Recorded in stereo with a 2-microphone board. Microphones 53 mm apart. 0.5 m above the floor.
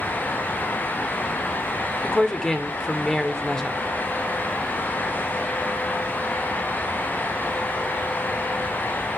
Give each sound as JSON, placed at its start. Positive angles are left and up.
{"t": 2.0, "sound": "a woman speaking", "side_deg": 10, "distance_m": 1.7}